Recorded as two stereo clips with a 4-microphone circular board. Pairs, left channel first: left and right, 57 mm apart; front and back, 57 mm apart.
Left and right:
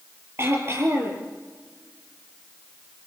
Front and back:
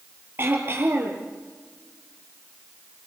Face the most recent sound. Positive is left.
turn(degrees=-135)